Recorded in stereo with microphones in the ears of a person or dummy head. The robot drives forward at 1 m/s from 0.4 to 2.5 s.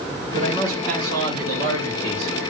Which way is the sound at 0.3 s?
45° right (ahead or behind).